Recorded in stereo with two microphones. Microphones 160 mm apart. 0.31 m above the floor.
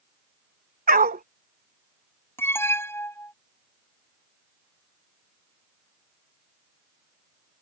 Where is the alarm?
15° left (ahead or behind).